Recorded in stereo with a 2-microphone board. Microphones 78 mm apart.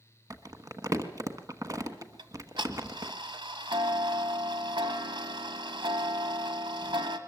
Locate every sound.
0.3 s crumpling: 45° right (ahead or behind), 1.2 m
2.2 s ticking: 80° right, 1.5 m